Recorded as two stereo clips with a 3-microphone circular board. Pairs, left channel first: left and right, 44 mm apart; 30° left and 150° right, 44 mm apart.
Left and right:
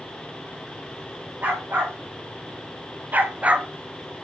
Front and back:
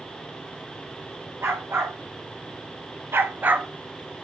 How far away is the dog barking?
About 3.5 m.